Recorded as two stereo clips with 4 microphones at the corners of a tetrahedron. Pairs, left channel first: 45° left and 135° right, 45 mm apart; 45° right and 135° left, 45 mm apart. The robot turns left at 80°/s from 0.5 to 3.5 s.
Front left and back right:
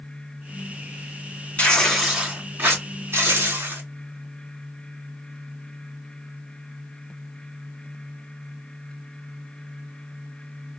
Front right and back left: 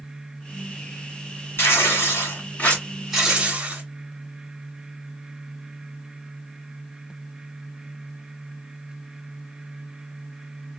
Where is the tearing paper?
15° right, 2.5 m; by 3.8 s 170° right, 2.5 m.